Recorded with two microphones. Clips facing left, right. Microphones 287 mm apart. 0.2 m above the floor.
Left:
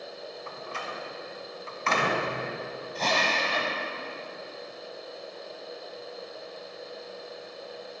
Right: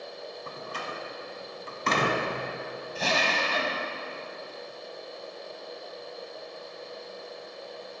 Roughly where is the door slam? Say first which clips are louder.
Right 1 dB; right.